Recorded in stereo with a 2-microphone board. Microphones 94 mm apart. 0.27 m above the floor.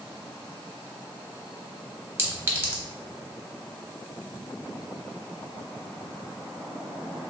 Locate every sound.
2.2 s a clink: 25° right (ahead or behind), 0.8 m